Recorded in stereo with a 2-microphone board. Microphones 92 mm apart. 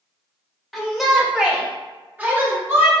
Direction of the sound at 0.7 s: Centre (ahead or behind).